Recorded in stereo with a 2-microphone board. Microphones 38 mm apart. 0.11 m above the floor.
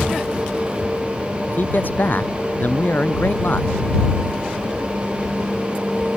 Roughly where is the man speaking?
Left.